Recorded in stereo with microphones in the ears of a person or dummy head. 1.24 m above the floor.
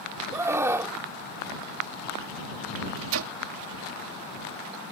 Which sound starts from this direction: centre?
A scream, at 0.3 s.